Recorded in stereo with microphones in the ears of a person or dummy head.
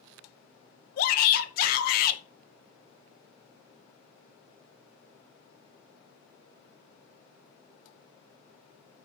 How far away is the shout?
About 1.8 m.